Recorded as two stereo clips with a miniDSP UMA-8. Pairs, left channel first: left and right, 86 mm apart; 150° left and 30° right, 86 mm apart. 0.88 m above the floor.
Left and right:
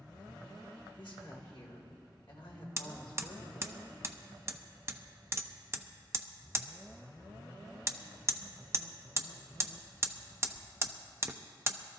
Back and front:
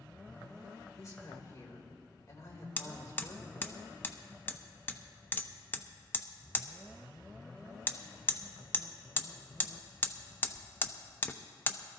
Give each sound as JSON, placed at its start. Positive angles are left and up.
{"t": 1.0, "sound": "a woman speaking", "azimuth_deg": 100, "distance_m": 3.0}
{"t": 2.8, "sound": "hammering", "azimuth_deg": -145, "distance_m": 0.6}